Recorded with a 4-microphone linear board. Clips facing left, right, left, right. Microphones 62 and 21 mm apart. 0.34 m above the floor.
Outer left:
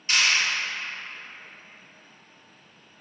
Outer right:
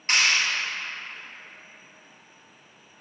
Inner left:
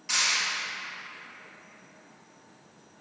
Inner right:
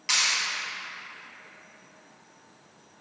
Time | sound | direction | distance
0.1 | a clap | 45° right (ahead or behind) | 2.5 m